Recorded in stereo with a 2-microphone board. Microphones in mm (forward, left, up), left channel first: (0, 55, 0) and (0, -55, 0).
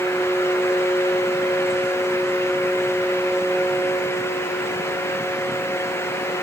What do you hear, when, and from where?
Only background noise.